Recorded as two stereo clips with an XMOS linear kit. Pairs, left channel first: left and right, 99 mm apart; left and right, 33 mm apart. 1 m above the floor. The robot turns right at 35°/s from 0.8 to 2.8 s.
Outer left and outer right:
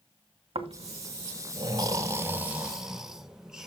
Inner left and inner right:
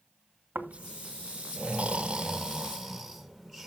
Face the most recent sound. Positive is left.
turn(degrees=-5)  # may be behind; listen again after turning